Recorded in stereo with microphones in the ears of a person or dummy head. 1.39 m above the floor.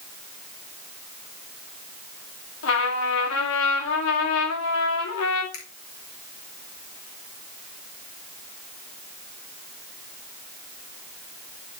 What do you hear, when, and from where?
2.6 s a trumpet: 75° left (ahead or behind), 1.8 m
5.5 s a finger snap: 80° left, 3 m